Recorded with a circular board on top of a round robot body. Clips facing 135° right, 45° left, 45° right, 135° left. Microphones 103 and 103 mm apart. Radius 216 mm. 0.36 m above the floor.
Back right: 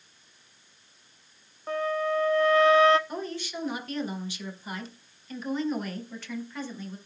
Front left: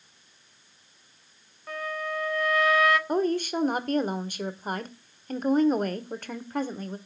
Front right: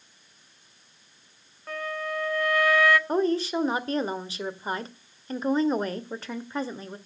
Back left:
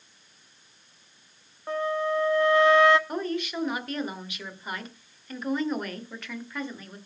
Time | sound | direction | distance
1.7 | a flute | 175° right | 1.4 m
3.1 | a woman speaking | 10° left | 2.0 m